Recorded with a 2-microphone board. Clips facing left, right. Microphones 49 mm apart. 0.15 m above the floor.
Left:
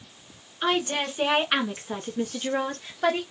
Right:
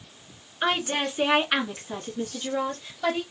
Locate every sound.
0.6 s a woman speaking: 25° right (ahead or behind), 1.5 m; by 3.2 s 55° left (ahead or behind), 2 m